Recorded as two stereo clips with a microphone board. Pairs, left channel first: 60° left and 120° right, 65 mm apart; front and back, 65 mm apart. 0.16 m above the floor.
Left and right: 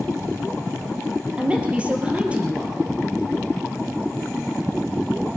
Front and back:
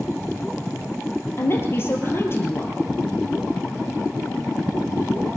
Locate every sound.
1.4 s a woman speaking: 50° right, 3 m